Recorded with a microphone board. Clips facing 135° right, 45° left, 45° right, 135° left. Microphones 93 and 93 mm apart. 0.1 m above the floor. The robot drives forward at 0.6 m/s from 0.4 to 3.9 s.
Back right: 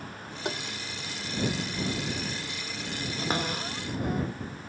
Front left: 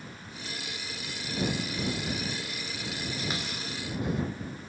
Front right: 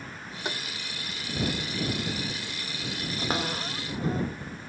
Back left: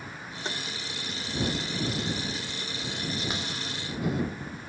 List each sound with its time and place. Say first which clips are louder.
0.5 s tapping: back right 9 dB, front right 1 dB; 120° right; by 0.6 s 125° right
3.2 s a cupboard door: back right 5 dB, front right 4 dB; 90° right; by 4.2 s 95° right